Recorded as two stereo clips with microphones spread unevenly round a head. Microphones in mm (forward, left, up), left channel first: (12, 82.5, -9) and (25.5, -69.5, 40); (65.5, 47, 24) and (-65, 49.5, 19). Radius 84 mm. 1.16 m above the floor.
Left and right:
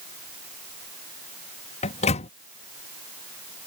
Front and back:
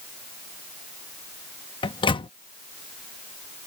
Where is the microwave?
50° left.